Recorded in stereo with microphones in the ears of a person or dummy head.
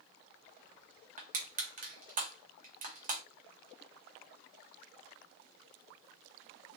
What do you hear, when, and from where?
1.2 s crushing: 45° right (ahead or behind), 1.8 m